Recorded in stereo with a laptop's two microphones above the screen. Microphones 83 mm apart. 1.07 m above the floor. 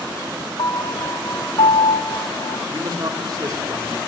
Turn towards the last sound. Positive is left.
turn(degrees=-45)  # may be behind; listen again after turning